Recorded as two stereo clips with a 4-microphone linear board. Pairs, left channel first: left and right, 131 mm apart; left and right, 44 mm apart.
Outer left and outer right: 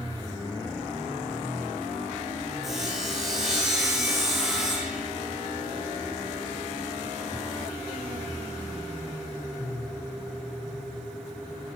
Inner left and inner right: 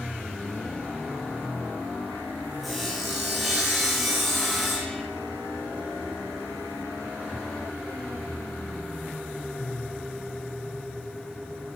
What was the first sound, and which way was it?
Sawing, centre (ahead or behind).